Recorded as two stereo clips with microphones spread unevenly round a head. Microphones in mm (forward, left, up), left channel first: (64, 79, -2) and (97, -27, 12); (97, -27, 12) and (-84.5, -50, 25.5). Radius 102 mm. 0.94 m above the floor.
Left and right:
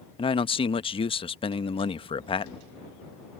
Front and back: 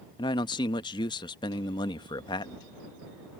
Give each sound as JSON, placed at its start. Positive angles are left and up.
{"t": 0.2, "sound": "a man speaking", "azimuth_deg": 75}